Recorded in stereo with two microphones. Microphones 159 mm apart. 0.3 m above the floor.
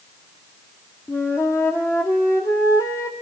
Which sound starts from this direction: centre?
A flute, at 1.1 s.